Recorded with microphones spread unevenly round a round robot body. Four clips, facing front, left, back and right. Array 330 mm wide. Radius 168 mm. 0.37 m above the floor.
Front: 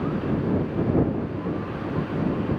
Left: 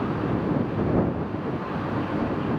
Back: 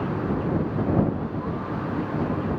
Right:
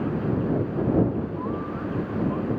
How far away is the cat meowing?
I don't hear a cat meowing.